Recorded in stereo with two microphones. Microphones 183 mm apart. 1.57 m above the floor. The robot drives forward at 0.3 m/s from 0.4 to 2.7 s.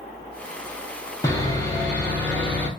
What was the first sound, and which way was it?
Sawing, 15° left (ahead or behind).